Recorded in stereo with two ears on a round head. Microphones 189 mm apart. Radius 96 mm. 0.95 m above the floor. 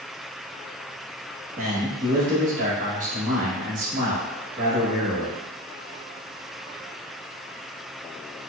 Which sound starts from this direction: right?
A man speaking, at 1.6 s.